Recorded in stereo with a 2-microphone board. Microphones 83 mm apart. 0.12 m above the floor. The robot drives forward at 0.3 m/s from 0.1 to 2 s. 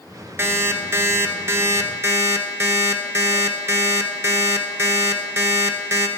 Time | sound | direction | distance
0.4 | an alarm clock | 30° right (ahead or behind) | 0.7 m